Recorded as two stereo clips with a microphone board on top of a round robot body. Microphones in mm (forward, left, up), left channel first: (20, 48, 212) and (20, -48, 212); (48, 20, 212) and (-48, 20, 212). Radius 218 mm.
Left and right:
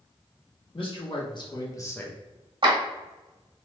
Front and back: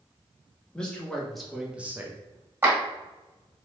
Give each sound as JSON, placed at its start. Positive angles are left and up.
{"t": 0.7, "sound": "a man speaking", "azimuth_deg": 80, "distance_m": 1.5}
{"t": 2.6, "sound": "a clap", "azimuth_deg": -115, "distance_m": 1.6}